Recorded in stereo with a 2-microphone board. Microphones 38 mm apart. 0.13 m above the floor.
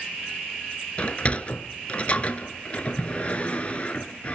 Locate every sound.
1.0 s a sliding door: 35° left (ahead or behind), 0.7 m